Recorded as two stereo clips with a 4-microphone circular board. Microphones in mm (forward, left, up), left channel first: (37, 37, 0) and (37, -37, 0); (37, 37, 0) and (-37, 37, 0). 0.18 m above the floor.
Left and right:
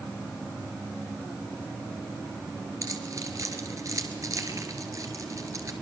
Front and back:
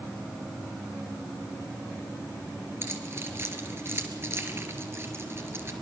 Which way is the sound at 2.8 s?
130° right.